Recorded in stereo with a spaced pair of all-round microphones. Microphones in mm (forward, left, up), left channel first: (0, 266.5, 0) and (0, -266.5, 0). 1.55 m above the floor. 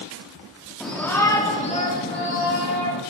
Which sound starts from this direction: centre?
A shout, at 0.8 s.